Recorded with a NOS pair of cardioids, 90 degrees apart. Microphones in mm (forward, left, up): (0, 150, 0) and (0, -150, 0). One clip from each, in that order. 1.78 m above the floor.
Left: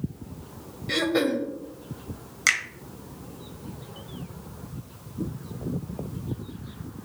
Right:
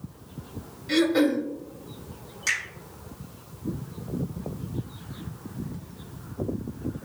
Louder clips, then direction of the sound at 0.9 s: Right 2 dB; 10° left.